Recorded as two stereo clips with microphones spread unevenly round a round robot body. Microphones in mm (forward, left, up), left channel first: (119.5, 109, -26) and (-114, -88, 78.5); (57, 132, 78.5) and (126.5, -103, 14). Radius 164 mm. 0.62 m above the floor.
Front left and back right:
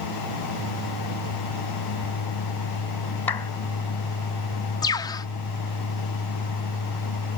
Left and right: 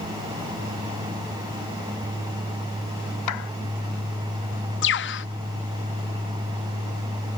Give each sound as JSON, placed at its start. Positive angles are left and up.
{"t": 3.3, "sound": "a clap", "azimuth_deg": 120}
{"t": 4.8, "sound": "a bird", "azimuth_deg": 75}